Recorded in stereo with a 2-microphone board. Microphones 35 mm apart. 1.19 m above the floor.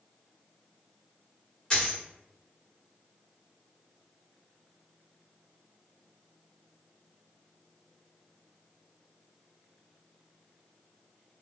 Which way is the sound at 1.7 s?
20° left (ahead or behind).